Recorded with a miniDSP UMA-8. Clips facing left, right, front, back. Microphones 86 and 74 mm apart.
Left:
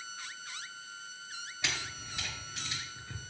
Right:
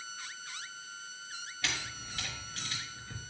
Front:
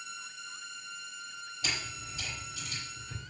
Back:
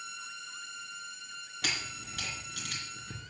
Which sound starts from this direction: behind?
A camera shutter, at 1.6 s.